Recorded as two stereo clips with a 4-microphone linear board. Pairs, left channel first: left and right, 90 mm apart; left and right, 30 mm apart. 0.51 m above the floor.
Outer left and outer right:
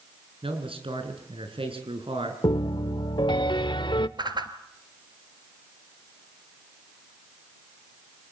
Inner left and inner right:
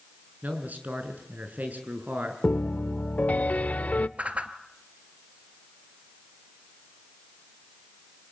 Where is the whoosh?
55° right (ahead or behind), 1.6 m.